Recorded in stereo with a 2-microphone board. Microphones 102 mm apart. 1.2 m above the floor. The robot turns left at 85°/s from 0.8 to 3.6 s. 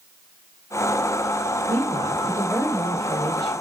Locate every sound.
1.7 s a woman speaking: 100° right, 2.5 m; by 3.6 s 95° left, 2.5 m